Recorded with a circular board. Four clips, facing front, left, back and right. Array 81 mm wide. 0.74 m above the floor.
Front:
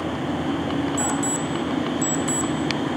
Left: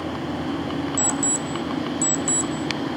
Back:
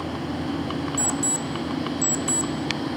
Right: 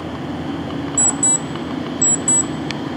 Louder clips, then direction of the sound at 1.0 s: Right 1 dB, front 4 dB; 100° left.